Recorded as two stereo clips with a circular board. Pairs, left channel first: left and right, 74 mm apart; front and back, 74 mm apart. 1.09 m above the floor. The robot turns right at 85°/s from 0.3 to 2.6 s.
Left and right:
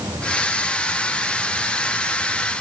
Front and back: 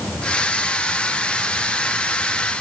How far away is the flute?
I don't hear a flute.